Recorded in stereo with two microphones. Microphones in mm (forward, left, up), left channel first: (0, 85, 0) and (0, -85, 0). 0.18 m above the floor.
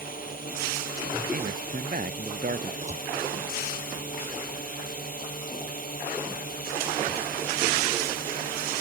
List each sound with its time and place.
0.0 s a drone: 55° left (ahead or behind)
1.3 s a man speaking: 60° right (ahead or behind)
2.8 s a door slam: 45° right (ahead or behind)